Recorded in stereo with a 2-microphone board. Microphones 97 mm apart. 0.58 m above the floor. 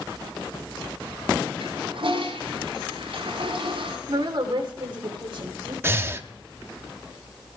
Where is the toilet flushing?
70° right (ahead or behind), 3.5 m.